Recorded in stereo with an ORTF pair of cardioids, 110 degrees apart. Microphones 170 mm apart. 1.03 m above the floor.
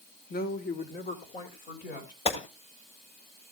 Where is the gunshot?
35° left, 2.5 m.